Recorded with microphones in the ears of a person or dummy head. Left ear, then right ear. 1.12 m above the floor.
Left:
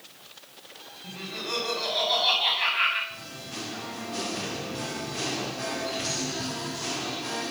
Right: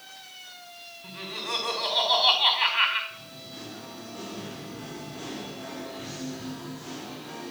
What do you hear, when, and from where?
1.0 s laughter: 35° right (ahead or behind), 4.5 m
3.1 s singing: 75° left (ahead or behind), 1.9 m